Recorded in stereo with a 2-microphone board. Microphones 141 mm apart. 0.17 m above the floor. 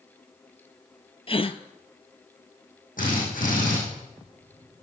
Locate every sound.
1.3 s a gasp: 40° left (ahead or behind), 0.7 m
3.0 s a drill: 75° left (ahead or behind), 6 m